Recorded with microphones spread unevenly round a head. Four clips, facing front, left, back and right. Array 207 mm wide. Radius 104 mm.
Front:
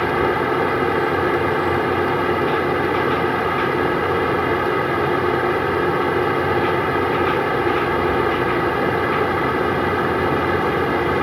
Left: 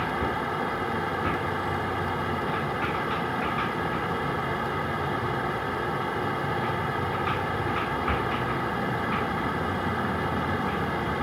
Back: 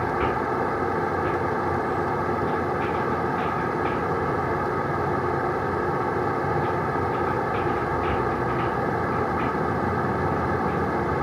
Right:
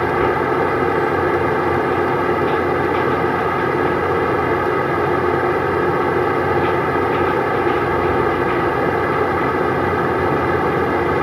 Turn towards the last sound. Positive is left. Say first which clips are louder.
# right 11 dB, front 6 dB
turn(degrees=-55)